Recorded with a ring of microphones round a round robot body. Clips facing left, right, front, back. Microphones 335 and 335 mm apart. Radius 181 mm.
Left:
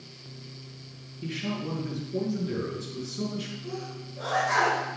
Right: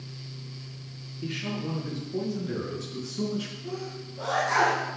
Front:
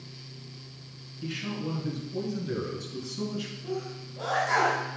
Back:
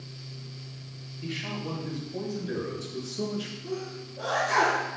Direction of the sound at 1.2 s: 10° right.